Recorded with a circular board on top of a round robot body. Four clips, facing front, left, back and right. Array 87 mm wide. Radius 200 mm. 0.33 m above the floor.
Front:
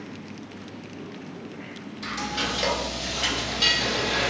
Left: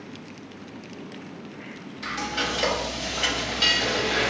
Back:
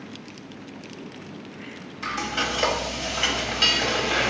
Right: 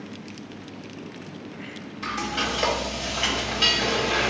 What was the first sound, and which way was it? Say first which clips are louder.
Frying: right 1 dB, back 2 dB; 165° right.